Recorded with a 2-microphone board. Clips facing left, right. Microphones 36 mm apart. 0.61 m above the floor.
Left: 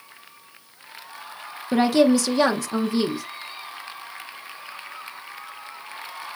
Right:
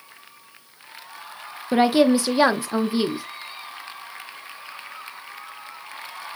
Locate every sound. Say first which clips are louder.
1.7 s a woman speaking: right 1 dB; 20° right (ahead or behind), 0.6 m